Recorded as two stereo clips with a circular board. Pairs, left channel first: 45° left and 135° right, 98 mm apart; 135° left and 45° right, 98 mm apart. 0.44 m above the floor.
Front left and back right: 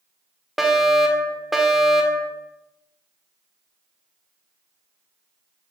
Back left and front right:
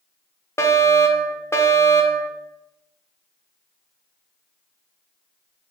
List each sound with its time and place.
0.6 s a fire alarm: 140° left, 1.9 m